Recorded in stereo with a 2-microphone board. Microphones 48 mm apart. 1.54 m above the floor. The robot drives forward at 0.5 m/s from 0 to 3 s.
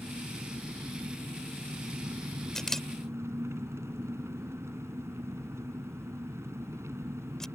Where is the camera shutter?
10° left (ahead or behind).